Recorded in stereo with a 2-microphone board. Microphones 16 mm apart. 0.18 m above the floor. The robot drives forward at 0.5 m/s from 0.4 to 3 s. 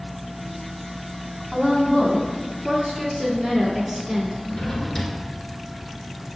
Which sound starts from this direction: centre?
A woman speaking, at 1.5 s.